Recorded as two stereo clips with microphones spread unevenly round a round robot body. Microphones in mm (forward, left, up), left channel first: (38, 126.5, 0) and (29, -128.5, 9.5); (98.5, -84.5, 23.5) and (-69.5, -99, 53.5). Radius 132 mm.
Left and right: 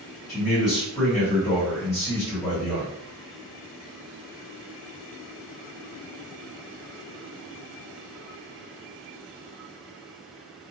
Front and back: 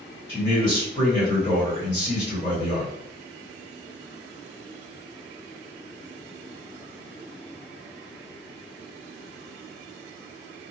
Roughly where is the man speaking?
Ahead.